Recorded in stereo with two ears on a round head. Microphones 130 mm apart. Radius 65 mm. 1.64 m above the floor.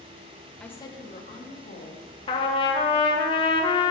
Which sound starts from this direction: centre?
A woman speaking, at 0.6 s.